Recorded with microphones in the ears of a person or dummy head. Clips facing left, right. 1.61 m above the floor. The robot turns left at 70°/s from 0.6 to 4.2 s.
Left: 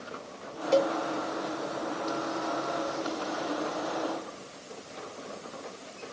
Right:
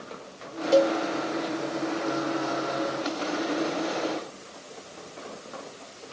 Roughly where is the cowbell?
Centre.